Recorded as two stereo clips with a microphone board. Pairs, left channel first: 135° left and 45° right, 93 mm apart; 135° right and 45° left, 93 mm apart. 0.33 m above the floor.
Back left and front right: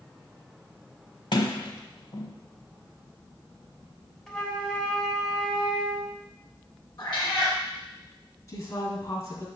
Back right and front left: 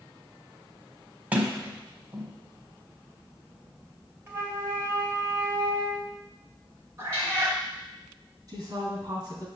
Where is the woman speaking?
90° left, 2.5 m.